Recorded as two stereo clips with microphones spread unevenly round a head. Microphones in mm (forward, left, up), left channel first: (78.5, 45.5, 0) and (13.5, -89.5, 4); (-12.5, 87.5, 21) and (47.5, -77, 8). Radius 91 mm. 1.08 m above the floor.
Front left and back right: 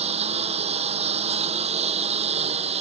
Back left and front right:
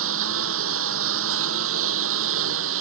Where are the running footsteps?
I don't hear running footsteps.